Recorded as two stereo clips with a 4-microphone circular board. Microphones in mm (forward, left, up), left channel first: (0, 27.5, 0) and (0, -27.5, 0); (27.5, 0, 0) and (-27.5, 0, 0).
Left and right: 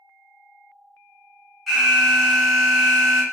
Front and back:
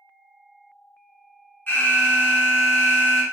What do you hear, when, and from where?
1.7 s an alarm: 10° left, 0.9 m